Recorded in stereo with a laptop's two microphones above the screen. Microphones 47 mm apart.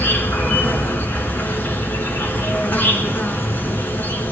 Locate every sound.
0.0 s an insect: 45° left (ahead or behind), 3 m